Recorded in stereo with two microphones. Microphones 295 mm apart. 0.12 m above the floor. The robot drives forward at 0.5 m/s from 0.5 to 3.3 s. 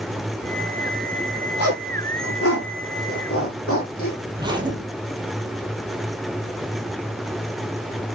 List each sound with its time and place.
1.6 s a zipper: 55° left (ahead or behind), 4.5 m; by 4.2 s 50° left (ahead or behind), 5 m
4.4 s a zipper: 15° right (ahead or behind), 1.7 m